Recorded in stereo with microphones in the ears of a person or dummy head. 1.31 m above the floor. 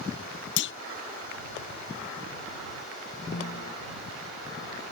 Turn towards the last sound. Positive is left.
turn(degrees=45)  # may be behind; listen again after turning